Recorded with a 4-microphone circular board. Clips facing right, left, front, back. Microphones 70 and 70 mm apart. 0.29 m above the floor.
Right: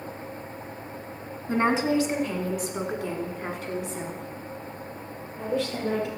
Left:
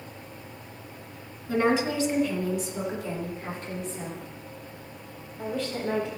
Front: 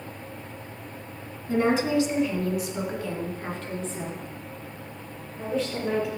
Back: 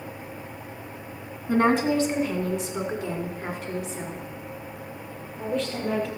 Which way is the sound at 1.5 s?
140° right.